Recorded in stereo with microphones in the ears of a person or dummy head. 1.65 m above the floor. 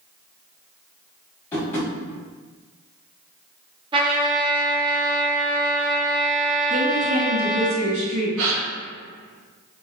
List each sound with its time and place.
1.5 s tapping: 15° left (ahead or behind), 1.3 m
3.9 s a trumpet: 25° right (ahead or behind), 0.8 m
6.7 s a woman speaking: 80° right, 2.0 m
8.4 s a gasp: 80° right, 0.6 m